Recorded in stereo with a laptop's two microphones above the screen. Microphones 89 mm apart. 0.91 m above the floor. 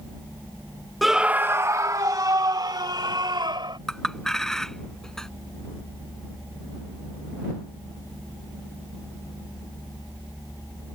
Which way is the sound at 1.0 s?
Centre (ahead or behind).